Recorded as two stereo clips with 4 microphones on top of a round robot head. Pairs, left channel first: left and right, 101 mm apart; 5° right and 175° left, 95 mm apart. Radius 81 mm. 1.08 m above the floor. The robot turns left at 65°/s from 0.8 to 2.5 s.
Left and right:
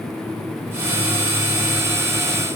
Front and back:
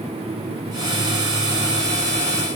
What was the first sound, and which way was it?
Only background noise.